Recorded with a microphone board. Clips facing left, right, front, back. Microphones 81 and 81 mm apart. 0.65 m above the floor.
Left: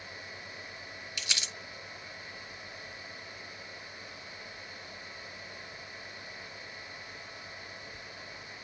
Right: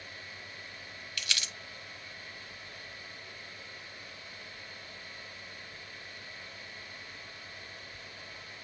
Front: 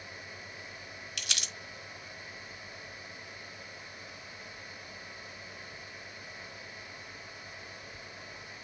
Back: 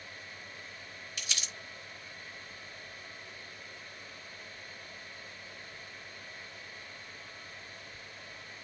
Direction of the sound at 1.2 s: 25° left.